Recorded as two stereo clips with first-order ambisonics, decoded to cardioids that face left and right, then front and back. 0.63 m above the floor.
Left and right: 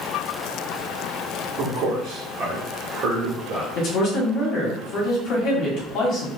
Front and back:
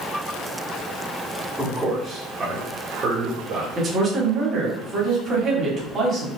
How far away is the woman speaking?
About 1.3 m.